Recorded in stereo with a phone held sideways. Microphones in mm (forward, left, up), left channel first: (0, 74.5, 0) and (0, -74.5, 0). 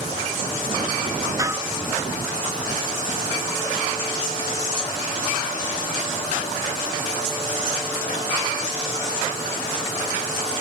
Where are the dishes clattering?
20° right (ahead or behind).